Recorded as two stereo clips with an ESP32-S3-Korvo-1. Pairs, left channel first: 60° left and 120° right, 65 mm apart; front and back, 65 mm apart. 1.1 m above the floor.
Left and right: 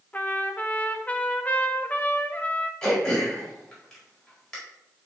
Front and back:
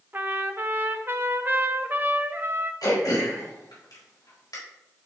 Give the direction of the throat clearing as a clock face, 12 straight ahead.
1 o'clock.